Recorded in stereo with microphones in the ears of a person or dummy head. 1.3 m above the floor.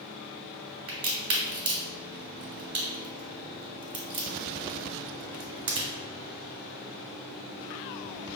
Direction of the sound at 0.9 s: 40° right (ahead or behind).